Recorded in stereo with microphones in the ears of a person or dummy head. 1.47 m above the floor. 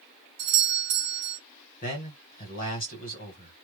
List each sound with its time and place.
0.4 s a doorbell: 60° right (ahead or behind), 1.1 m
1.8 s a man speaking: 40° left (ahead or behind), 1.6 m